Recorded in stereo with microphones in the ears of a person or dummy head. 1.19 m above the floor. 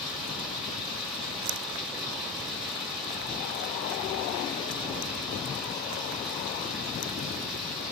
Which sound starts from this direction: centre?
Running water, at 0.0 s.